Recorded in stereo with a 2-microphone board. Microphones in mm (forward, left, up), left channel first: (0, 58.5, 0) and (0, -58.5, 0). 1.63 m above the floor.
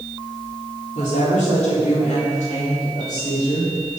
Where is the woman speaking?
85° left, 4 m; by 4.0 s 75° left (ahead or behind), 7.5 m.